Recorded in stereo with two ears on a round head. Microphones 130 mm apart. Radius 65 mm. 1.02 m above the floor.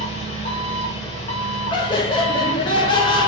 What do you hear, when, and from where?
0.0 s an engine running: 45° left (ahead or behind), 1.0 m
1.7 s laughter: 30° left (ahead or behind), 0.7 m